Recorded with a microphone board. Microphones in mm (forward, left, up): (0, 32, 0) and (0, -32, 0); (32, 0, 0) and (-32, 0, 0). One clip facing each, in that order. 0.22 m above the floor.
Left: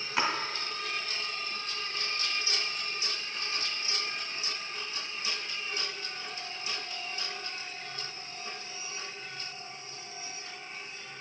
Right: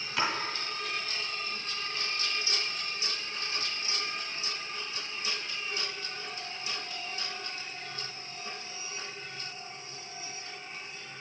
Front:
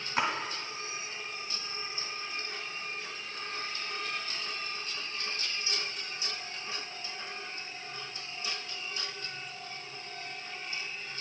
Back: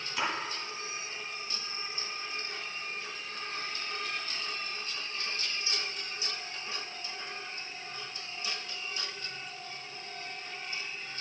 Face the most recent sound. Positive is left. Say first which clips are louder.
# left 1 dB, front 3 dB
turn(degrees=30)